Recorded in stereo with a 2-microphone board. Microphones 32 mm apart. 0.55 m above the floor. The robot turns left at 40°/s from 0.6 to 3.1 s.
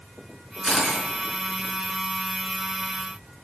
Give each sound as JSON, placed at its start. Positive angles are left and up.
{"t": 0.6, "sound": "a camera shutter", "side_deg": 5, "distance_m": 4.0}